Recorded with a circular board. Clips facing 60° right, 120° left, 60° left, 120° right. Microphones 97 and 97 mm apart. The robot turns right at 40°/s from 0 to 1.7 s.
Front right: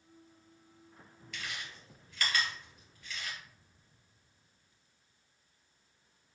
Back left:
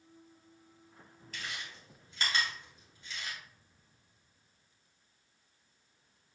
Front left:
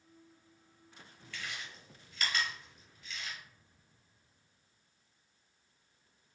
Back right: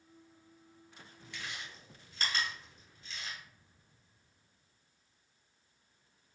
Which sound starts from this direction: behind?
Chewing, at 1.3 s.